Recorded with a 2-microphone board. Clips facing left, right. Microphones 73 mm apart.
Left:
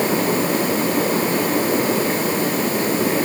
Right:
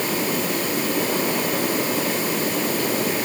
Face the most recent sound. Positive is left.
No sound to turn to.